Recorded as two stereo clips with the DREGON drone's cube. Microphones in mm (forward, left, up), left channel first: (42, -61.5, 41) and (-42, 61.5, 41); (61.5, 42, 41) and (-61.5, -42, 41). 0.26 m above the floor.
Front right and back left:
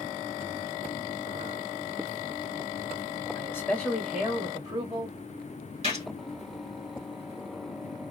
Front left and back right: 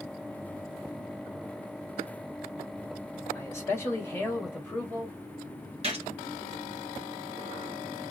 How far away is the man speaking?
About 1.4 m.